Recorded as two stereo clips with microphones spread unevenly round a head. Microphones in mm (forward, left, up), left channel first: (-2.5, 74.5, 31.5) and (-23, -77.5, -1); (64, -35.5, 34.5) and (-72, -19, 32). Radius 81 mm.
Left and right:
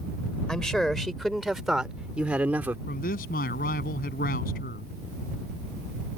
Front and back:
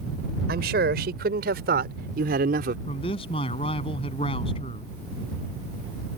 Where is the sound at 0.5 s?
165° left; by 2.8 s straight behind.